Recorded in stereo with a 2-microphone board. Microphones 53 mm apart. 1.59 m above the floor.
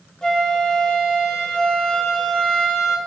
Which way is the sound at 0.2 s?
15° left (ahead or behind).